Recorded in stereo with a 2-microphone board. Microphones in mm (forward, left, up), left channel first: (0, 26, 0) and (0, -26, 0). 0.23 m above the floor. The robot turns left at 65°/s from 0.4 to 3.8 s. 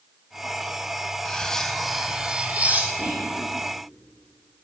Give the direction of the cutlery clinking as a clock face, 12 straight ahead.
11 o'clock.